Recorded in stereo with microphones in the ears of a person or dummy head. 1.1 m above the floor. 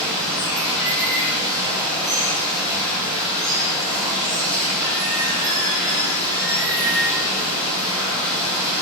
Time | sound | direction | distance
0.0 | running water | 20° right (ahead or behind) | 1.0 m